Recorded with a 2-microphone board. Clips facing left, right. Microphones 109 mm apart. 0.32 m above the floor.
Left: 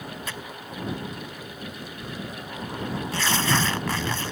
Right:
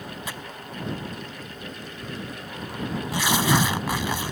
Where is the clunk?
No clunk in this recording.